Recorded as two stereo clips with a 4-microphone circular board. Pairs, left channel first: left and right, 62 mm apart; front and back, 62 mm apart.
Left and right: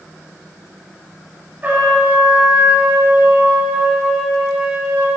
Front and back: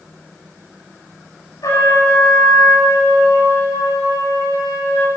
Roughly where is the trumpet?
Ahead right.